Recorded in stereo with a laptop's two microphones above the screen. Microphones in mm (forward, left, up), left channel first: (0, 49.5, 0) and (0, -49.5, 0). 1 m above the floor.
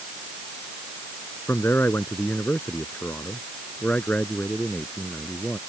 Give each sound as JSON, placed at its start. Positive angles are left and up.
{"t": 1.5, "sound": "a man speaking", "side_deg": 25}